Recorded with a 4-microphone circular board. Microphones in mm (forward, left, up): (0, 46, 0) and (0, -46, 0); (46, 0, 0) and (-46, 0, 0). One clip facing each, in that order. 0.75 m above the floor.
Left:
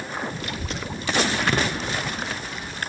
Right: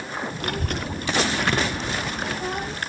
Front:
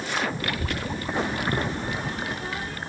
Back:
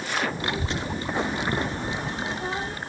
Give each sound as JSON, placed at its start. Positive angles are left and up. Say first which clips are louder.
{"t": 0.4, "sound": "a child speaking", "louder": "right 3 dB, back 1 dB", "azimuth_deg": -115, "distance_m": 0.7}